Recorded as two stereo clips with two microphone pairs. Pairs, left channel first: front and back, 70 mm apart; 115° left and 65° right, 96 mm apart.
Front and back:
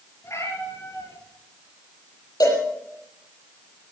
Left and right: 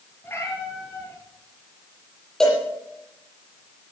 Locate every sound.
0.2 s a cat meowing: 50° left, 7 m
2.4 s a cowbell: 30° left, 7.5 m